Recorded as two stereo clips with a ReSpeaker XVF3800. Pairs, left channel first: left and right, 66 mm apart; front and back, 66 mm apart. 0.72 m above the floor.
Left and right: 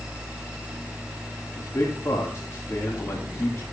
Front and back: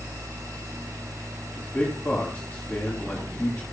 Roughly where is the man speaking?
Ahead left.